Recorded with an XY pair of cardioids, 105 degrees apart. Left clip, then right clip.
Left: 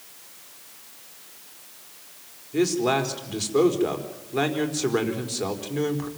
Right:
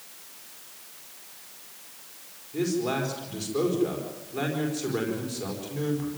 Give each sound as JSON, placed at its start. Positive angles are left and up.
{"t": 2.5, "sound": "a man speaking", "azimuth_deg": 50, "distance_m": 4.5}